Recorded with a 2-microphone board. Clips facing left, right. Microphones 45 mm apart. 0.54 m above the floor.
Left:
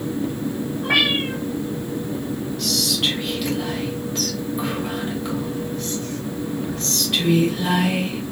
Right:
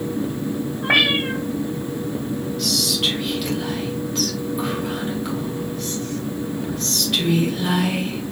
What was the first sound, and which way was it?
A cat meowing, 35° right (ahead or behind).